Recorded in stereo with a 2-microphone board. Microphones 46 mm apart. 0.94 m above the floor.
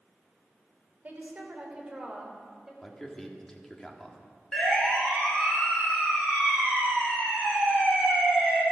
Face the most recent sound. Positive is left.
turn(degrees=5)  # may be behind; listen again after turning